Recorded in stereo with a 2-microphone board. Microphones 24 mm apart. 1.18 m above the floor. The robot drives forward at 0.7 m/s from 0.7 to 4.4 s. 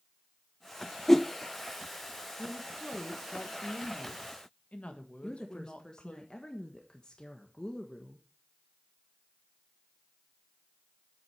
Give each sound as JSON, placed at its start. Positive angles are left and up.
{"t": 1.1, "sound": "a whoosh", "side_deg": 10, "distance_m": 0.6}
{"t": 2.4, "sound": "a woman speaking", "side_deg": 60, "distance_m": 1.5}
{"t": 5.2, "sound": "a woman speaking", "side_deg": 30, "distance_m": 1.3}